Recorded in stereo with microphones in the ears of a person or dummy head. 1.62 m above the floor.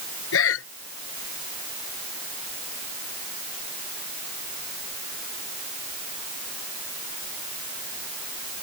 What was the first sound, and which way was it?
Breathing, 75° left (ahead or behind).